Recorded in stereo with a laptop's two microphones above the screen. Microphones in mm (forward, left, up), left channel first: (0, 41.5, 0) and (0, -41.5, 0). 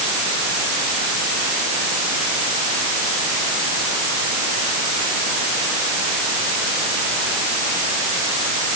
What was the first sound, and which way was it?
Only background noise.